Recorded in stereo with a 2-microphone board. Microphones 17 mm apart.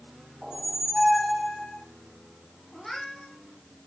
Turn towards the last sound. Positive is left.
turn(degrees=15)  # may be behind; listen again after turning